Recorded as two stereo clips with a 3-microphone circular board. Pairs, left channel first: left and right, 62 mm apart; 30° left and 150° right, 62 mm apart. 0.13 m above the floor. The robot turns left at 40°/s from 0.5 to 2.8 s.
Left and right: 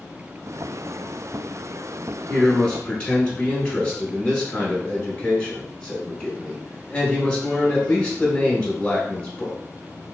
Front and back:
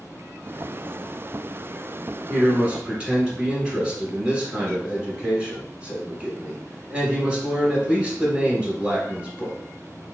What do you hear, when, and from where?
2.3 s a man speaking: 170° left, 1.1 m; by 9.6 s 150° left, 1.1 m